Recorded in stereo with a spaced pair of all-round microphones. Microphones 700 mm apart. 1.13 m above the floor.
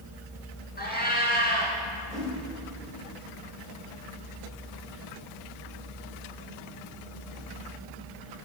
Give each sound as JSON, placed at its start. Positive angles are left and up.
{"t": 0.8, "sound": "a cat meowing", "side_deg": 15, "distance_m": 2.0}
{"t": 2.1, "sound": "a whoosh", "side_deg": -80, "distance_m": 2.5}